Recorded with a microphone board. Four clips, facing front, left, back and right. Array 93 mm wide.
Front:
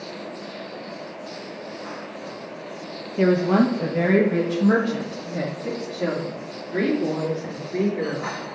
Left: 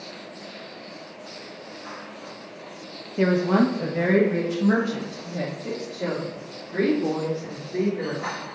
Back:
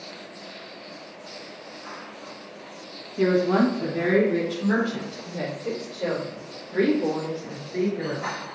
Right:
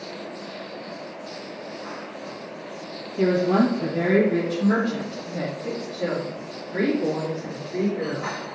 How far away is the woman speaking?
About 0.9 m.